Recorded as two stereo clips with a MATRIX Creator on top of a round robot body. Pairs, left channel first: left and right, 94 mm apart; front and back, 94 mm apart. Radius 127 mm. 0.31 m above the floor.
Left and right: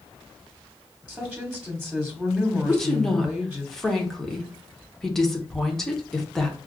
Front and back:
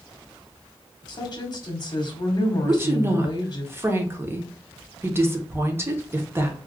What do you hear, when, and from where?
1.1 s a woman speaking: 5° right, 1.2 m
2.6 s a woman speaking: 170° left, 1.0 m